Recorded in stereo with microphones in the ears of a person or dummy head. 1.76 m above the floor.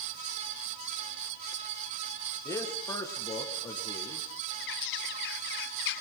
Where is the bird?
65° left (ahead or behind), 0.9 m.